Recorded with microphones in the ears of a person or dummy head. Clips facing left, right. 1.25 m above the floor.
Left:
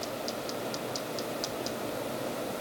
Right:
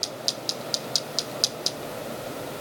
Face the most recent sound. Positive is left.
No sound to turn to.